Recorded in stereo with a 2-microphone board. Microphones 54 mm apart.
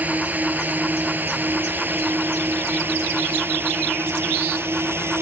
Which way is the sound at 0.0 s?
30° right (ahead or behind).